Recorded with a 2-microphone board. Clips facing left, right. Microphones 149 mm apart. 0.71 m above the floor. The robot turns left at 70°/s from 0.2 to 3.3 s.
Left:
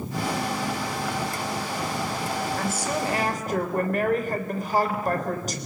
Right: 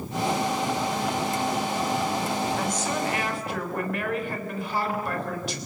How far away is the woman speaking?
About 3.5 m.